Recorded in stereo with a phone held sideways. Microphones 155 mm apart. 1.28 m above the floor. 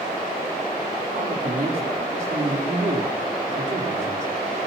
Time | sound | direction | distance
1.1 | a man speaking | 50° right (ahead or behind) | 4 m